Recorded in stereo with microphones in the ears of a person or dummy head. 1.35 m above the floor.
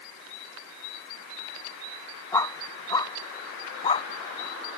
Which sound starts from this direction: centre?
A dog barking, at 2.3 s.